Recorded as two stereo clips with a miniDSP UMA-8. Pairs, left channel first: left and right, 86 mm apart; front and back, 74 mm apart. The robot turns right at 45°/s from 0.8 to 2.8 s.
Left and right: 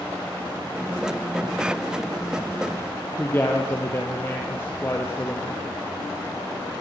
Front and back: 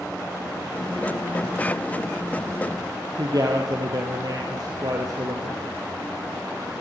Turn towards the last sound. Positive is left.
turn(degrees=155)